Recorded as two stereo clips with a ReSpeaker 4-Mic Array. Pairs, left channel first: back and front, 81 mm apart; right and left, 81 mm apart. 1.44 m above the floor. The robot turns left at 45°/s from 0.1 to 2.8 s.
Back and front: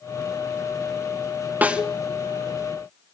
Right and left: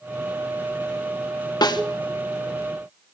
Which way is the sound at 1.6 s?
70° right.